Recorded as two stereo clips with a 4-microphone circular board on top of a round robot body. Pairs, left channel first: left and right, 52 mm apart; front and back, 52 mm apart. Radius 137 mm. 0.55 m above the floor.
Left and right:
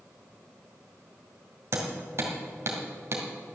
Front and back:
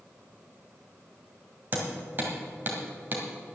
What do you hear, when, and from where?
1.7 s hammering: 130° right, 2.0 m